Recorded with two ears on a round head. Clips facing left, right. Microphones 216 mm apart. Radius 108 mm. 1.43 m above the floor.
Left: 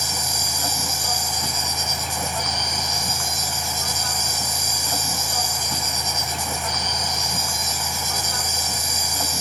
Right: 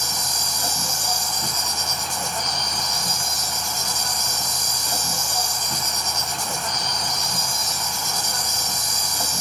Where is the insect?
10° right (ahead or behind), 1.2 m.